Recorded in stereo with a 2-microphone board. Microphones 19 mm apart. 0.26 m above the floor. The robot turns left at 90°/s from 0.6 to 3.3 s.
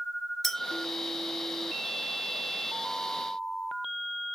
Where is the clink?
5° left (ahead or behind), 1.6 m.